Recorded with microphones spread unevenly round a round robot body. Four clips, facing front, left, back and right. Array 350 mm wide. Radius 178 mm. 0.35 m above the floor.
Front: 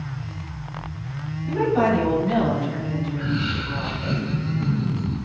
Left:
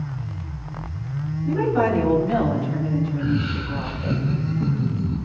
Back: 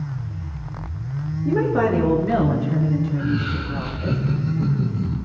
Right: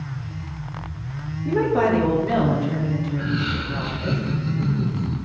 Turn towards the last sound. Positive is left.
turn(degrees=-135)